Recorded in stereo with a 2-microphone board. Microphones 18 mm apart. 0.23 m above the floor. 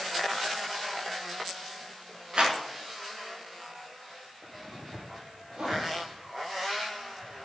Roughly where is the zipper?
Right.